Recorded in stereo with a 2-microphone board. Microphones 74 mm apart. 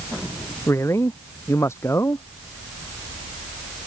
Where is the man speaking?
40° left (ahead or behind).